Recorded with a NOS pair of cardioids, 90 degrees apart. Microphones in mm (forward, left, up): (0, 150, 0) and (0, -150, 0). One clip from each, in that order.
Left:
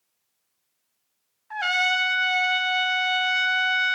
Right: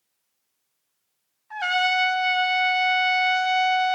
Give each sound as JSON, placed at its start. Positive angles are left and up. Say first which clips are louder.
{"t": 1.5, "sound": "a trumpet", "louder": "even", "azimuth_deg": 10, "distance_m": 0.9}